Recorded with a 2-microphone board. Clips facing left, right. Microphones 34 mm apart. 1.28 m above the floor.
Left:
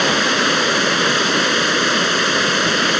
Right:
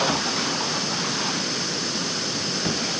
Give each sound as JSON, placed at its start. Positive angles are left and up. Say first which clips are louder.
{"t": 0.0, "sound": "running water", "louder": "left 8 dB", "side_deg": 60}